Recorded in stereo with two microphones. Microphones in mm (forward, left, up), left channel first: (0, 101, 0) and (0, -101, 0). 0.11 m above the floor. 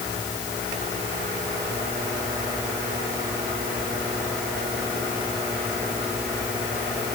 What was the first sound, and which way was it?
Only background noise.